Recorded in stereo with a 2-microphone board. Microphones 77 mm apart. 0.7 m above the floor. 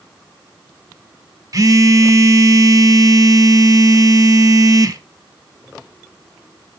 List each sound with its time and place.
1.5 s a phone buzzing: 45° right (ahead or behind), 0.8 m